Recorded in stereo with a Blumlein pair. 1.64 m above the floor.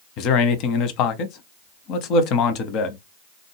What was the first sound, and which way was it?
A man speaking, 40° left.